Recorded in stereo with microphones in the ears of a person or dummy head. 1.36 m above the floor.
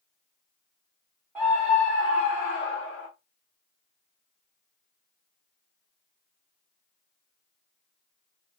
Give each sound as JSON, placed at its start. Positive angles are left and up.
{"t": 1.4, "sound": "a scream", "side_deg": -10, "distance_m": 1.0}